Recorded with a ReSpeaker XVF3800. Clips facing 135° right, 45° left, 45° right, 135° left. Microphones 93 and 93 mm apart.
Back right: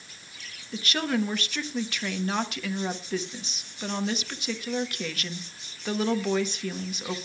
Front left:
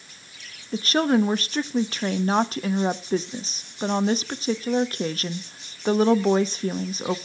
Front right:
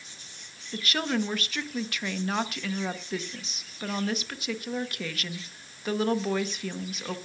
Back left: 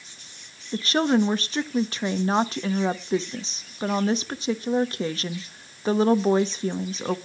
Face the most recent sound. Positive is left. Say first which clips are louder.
# front left 7 dB, back left 8 dB
turn(degrees=85)